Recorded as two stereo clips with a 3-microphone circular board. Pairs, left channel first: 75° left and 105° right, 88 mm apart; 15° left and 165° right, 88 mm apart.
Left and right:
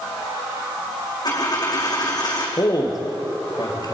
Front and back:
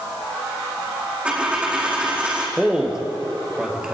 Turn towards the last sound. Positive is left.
turn(degrees=115)